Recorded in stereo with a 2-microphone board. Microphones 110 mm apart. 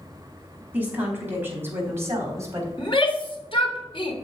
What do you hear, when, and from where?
0.7 s a woman speaking: 15° right (ahead or behind), 4 m; by 2.7 s 30° right (ahead or behind), 3.5 m
2.8 s a shout: 50° left (ahead or behind), 2 m